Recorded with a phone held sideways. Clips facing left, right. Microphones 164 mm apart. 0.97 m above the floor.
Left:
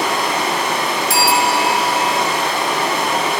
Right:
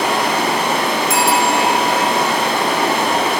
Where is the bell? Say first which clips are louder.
Even; 30° left (ahead or behind), 1.3 m.